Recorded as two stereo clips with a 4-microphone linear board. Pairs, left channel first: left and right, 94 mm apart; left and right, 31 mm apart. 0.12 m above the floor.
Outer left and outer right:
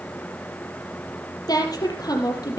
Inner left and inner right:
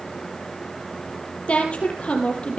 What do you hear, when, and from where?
1.5 s a woman speaking: 45° left (ahead or behind), 4 m